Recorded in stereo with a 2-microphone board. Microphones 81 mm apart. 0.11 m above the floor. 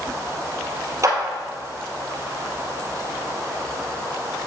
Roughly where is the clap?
Right.